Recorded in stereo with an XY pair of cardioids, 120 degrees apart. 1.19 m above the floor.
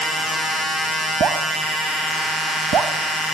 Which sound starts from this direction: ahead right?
Dripping, at 1.2 s.